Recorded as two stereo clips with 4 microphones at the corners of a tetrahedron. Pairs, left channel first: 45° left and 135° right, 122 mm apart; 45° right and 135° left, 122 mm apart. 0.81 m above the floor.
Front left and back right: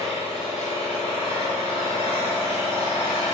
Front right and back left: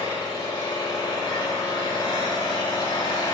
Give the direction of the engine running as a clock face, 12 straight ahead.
12 o'clock.